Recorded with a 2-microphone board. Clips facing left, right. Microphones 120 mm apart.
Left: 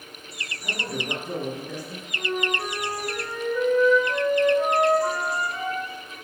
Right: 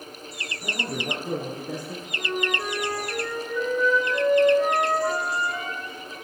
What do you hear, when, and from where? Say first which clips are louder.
0.6 s a man speaking: right 1 dB; 50° right (ahead or behind), 2.5 m; by 2.0 s 45° right (ahead or behind), 3 m
2.1 s a flute: left 1 dB; 35° left (ahead or behind), 2.0 m